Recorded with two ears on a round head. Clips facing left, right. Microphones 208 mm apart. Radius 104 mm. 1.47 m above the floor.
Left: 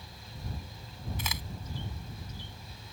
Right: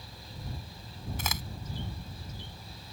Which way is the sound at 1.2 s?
40° right (ahead or behind).